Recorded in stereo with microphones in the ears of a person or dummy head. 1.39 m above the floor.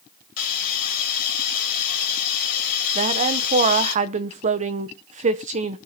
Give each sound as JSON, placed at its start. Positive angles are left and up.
{"t": 0.4, "sound": "a hiss", "side_deg": 45, "distance_m": 2.5}
{"t": 3.0, "sound": "a woman speaking", "side_deg": -40, "distance_m": 0.8}